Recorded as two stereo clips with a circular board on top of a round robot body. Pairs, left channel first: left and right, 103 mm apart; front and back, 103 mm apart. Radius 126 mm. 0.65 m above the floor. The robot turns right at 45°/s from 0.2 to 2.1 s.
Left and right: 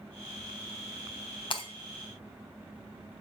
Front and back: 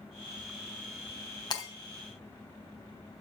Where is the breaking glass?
50° left, 3.5 m; by 1.7 s 60° left, 3.5 m.